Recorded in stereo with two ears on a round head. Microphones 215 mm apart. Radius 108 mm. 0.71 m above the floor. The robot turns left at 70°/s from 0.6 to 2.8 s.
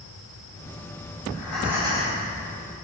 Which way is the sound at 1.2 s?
25° left.